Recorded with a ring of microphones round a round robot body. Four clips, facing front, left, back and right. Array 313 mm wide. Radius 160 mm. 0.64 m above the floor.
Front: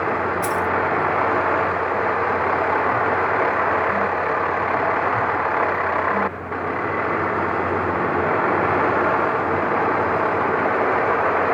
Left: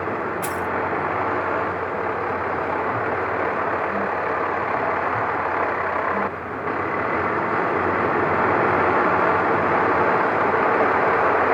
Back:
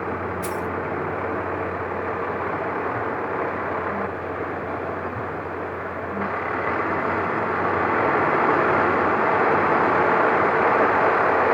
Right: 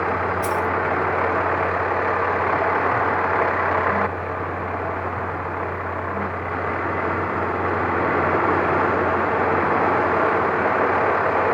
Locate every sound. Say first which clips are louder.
0.4 s keys jangling: right 3 dB, front 5 dB; 35° left, 1.3 m